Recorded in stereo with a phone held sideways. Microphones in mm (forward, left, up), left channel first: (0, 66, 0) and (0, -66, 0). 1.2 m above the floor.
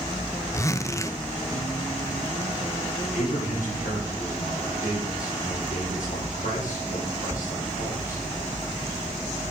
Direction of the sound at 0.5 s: 20° left (ahead or behind).